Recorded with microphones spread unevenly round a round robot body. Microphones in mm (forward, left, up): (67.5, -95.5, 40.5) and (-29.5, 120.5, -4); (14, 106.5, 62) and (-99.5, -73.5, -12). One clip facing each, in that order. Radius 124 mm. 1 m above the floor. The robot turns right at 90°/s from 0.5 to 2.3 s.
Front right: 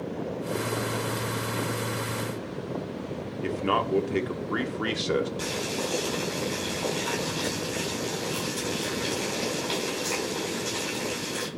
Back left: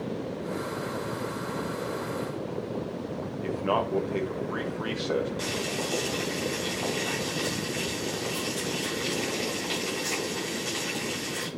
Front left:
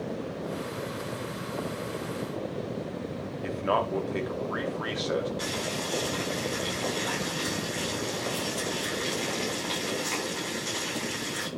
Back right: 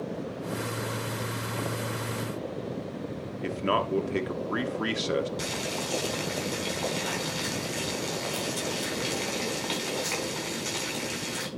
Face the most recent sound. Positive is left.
turn(degrees=-155)